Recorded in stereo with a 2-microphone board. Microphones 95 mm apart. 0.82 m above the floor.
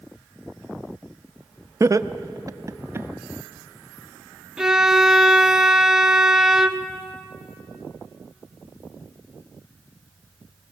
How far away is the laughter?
About 0.6 m.